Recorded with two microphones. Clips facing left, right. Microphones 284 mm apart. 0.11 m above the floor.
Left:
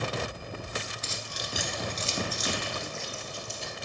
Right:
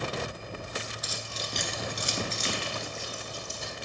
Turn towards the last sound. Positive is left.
turn(degrees=-55)  # may be behind; listen again after turning